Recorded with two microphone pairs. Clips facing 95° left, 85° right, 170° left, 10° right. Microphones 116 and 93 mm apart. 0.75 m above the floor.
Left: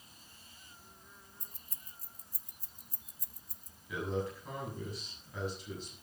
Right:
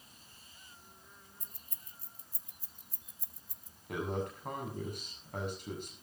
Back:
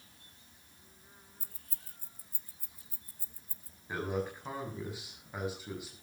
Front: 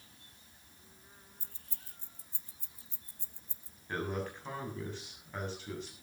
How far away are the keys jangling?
About 0.8 m.